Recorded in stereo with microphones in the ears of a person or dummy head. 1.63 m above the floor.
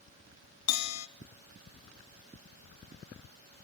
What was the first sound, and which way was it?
A bell, 85° left.